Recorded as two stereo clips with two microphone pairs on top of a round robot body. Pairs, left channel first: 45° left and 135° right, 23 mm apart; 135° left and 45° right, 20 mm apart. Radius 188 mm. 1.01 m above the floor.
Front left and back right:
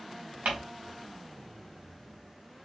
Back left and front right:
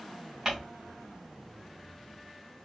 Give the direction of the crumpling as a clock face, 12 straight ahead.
4 o'clock.